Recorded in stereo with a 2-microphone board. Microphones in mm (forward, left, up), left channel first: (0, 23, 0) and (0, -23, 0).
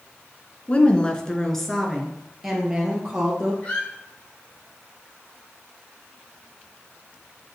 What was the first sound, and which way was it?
A woman speaking, 30° left (ahead or behind).